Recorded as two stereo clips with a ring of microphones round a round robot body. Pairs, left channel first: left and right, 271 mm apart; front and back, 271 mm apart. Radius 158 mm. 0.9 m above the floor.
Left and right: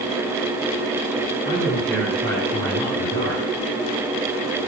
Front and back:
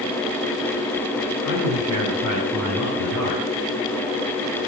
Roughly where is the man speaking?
Behind.